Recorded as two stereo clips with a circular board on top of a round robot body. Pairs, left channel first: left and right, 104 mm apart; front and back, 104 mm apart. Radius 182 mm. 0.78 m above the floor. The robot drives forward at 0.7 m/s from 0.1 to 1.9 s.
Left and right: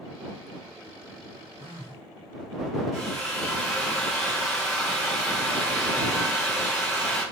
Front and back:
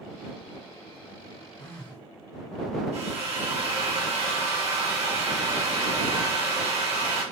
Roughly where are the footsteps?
No footsteps in this recording.